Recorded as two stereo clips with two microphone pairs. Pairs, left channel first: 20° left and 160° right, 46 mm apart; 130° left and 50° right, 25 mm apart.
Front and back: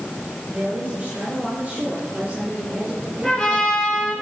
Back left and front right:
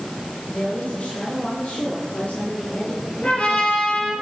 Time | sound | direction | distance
0.5 | a woman speaking | 150° left | 6.5 m
3.2 | a trumpet | 95° left | 7.5 m